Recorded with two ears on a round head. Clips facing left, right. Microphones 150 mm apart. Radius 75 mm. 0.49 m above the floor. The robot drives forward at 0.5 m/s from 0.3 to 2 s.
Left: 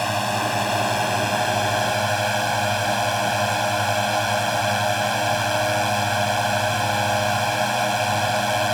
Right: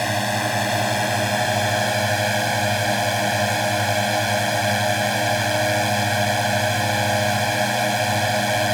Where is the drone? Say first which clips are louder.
Even; 15° right (ahead or behind).